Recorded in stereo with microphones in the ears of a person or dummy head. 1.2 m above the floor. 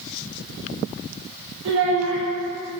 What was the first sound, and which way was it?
A child speaking, 75° right (ahead or behind).